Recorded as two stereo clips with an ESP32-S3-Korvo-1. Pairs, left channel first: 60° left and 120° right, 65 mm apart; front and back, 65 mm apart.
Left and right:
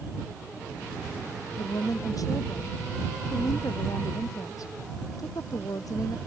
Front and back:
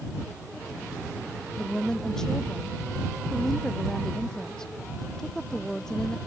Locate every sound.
1.6 s a woman speaking: 80° left